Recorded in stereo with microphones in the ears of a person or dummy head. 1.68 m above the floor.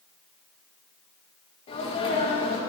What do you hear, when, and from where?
1.7 s a sneeze: 35° left (ahead or behind), 3 m